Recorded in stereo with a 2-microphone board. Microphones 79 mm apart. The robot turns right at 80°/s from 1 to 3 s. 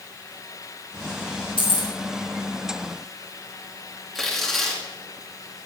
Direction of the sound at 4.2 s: Centre (ahead or behind).